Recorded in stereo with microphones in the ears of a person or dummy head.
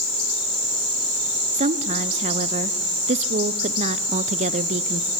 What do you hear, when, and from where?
1.5 s a woman speaking: 35° right (ahead or behind), 0.8 m